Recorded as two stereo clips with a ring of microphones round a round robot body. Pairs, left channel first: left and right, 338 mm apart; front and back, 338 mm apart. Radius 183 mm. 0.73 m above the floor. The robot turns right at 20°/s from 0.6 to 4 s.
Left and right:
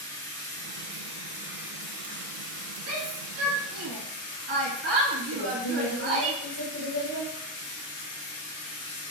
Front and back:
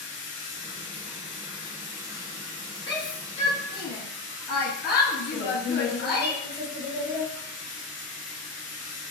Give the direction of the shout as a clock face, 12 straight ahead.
3 o'clock.